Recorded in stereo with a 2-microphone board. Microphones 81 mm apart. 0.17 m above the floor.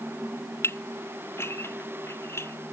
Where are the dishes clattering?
30° left (ahead or behind).